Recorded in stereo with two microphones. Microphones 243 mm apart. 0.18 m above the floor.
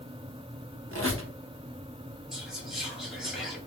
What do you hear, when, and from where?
0.9 s a squeak: 60° right (ahead or behind), 0.8 m
2.3 s whispering: centre (ahead or behind), 2 m